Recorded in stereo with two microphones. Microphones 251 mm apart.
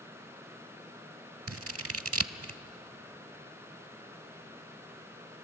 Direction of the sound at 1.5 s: 65° right (ahead or behind).